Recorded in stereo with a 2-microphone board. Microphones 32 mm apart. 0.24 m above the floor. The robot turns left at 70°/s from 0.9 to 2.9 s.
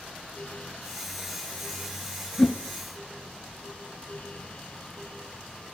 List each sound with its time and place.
2.4 s a whoosh: 30° left (ahead or behind), 0.6 m; by 2.5 s 15° left (ahead or behind), 0.6 m